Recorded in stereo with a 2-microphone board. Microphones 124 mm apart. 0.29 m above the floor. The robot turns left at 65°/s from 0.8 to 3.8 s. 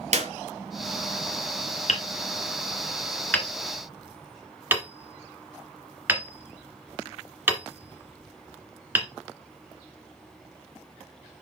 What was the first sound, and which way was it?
A clap, 60° right (ahead or behind).